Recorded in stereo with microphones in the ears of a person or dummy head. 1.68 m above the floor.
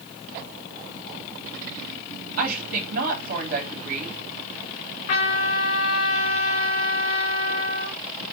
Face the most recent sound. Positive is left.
turn(degrees=50)  # may be behind; listen again after turning